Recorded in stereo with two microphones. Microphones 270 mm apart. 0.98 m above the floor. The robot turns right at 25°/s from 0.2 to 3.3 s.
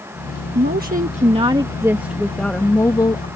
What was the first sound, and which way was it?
A woman speaking, 45° right.